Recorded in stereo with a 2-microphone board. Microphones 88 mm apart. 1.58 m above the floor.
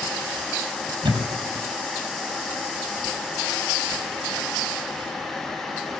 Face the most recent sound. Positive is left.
turn(degrees=-70)  # may be behind; listen again after turning